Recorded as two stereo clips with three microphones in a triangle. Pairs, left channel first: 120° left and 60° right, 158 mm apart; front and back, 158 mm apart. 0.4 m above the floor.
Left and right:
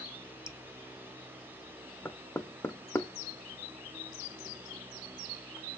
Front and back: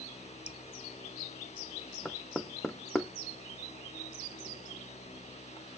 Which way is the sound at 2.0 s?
80° left.